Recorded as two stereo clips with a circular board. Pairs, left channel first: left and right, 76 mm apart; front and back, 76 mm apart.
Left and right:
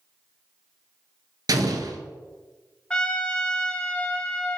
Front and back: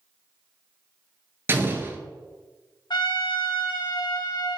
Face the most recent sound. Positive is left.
turn(degrees=15)